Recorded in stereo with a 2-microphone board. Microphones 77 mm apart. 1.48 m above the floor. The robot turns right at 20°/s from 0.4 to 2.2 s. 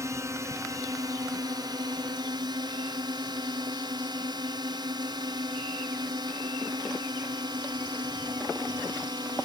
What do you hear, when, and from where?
0.0 s a drone: 135° right; by 9.5 s 100° right